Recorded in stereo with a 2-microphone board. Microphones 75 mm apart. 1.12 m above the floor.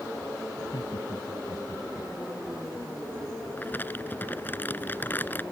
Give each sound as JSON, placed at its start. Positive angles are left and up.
{"t": 0.6, "sound": "laughter", "side_deg": 75}
{"t": 3.6, "sound": "crumpling", "side_deg": 25}